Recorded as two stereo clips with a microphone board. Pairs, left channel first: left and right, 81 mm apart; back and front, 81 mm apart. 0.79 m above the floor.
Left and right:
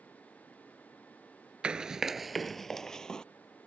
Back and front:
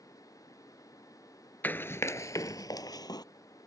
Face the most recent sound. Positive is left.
turn(degrees=170)